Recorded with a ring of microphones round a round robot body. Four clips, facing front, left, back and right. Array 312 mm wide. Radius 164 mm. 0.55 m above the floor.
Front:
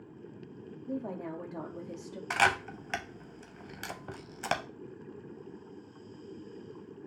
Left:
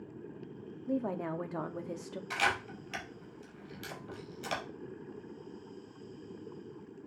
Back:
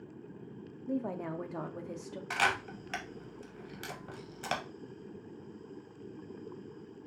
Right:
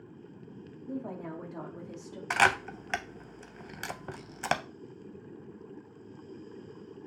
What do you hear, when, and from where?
0.9 s a woman speaking: 110° left, 0.7 m
2.3 s a camera shutter: 70° right, 0.5 m